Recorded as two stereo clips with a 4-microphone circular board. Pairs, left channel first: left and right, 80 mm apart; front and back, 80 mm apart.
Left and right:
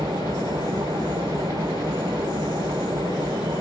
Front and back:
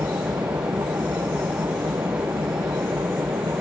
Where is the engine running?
130° right.